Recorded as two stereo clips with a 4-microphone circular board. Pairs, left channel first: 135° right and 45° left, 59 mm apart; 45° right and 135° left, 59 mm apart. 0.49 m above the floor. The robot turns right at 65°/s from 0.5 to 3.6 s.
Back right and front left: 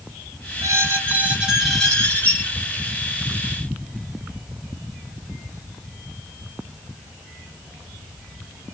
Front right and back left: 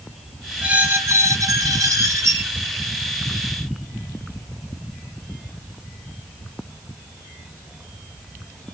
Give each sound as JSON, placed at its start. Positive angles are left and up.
{"t": 0.6, "sound": "a squeak", "azimuth_deg": 65, "distance_m": 1.5}